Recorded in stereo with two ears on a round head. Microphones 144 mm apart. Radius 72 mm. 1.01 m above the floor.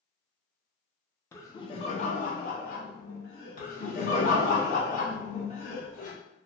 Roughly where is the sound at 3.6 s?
Left.